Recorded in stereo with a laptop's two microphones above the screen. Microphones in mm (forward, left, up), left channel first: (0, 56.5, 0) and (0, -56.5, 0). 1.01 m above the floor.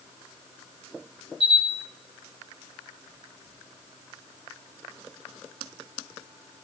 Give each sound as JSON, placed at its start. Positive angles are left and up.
{"t": 1.4, "sound": "a camera shutter", "side_deg": -70, "distance_m": 5.5}